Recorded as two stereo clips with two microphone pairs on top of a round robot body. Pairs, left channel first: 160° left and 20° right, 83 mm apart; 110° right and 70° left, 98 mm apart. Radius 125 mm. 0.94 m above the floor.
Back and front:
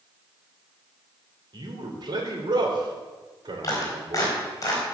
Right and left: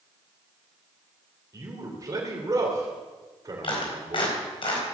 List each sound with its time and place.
1.5 s a man speaking: 10° left, 3.5 m
3.6 s a clap: 145° right, 4 m